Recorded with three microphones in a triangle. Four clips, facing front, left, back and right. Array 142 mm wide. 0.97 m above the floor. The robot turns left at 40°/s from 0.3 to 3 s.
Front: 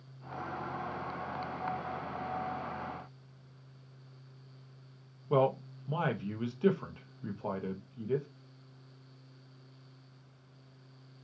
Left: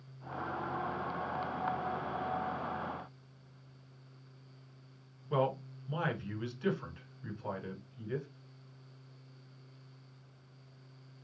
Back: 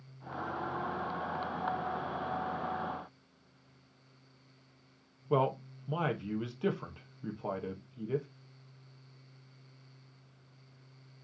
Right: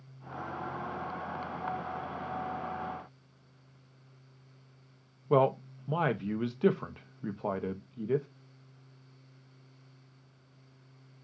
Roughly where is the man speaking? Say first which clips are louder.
Right 7 dB, front 2 dB; right.